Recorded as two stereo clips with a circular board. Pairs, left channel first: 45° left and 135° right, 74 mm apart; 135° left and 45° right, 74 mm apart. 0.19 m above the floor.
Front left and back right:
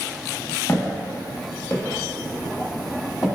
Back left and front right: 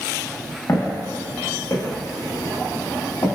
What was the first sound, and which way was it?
Footsteps, 95° left.